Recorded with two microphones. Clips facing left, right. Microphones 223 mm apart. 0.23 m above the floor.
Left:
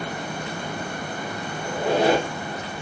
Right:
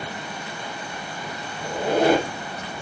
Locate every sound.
1.6 s a squeak: 50° right (ahead or behind), 1.6 m